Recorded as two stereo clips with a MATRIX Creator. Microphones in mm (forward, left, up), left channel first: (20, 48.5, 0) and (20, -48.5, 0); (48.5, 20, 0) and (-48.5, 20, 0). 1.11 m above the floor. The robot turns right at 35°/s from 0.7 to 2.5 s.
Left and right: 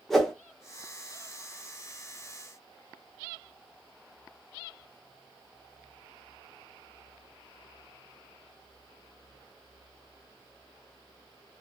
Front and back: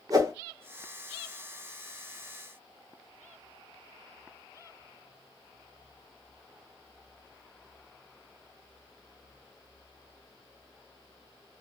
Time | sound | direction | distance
0.1 | a whoosh | 175° left | 0.8 m